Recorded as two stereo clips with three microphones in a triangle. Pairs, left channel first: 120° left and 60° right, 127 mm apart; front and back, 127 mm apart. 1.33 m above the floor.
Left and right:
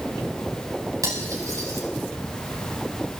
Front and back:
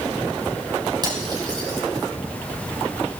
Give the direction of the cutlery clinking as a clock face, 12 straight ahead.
4 o'clock.